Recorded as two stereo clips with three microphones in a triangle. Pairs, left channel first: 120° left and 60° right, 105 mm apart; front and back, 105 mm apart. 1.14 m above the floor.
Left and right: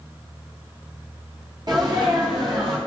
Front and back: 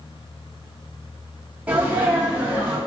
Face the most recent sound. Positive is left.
turn(degrees=-105)